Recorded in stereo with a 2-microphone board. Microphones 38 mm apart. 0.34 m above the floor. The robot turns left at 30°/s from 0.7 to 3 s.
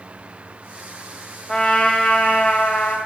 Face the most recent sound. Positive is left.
turn(degrees=115)